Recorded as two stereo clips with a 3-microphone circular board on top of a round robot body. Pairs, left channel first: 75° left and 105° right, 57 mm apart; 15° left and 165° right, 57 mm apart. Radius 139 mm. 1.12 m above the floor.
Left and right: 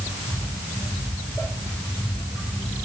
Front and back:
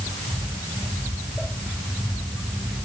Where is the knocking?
No knocking in this recording.